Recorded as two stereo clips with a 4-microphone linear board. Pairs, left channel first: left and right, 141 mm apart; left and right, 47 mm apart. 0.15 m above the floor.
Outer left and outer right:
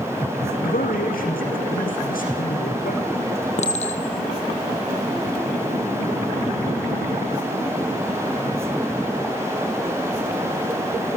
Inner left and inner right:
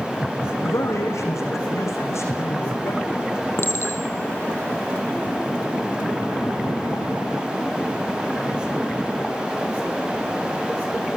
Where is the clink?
50° left (ahead or behind), 3 m.